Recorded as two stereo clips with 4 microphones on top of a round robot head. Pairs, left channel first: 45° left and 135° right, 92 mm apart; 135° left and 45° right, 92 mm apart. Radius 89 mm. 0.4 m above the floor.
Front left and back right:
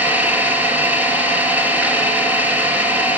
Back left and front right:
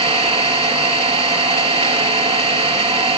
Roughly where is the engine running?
Ahead right.